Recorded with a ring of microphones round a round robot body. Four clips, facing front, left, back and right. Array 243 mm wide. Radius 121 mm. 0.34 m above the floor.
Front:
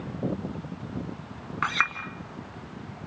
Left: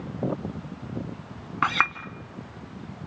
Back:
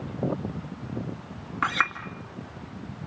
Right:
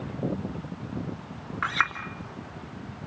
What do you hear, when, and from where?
1.6 s a clink: 80° left, 2 m